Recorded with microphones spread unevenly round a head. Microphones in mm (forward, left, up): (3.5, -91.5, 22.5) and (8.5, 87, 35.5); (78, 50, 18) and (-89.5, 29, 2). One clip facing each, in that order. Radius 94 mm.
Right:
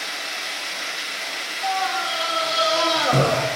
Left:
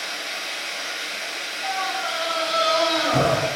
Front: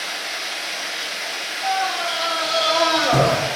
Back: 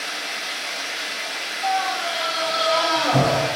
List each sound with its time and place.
0.0 s running water: 105° right, 2.5 m
1.6 s a scream: 55° right, 1.7 m